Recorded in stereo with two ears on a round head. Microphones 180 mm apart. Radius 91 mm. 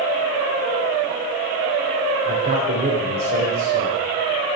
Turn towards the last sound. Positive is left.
turn(degrees=-30)  # may be behind; listen again after turning